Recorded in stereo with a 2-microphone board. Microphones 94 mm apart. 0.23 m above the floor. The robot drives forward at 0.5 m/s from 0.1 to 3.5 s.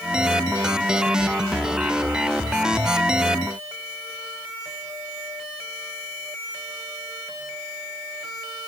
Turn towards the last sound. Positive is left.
No sound to turn to.